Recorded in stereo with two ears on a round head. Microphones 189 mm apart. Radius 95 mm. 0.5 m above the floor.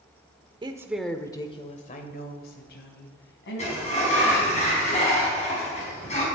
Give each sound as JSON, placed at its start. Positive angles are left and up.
{"t": 0.6, "sound": "a woman speaking", "side_deg": -25, "distance_m": 1.3}
{"t": 3.6, "sound": "a sliding door", "side_deg": 35, "distance_m": 5.0}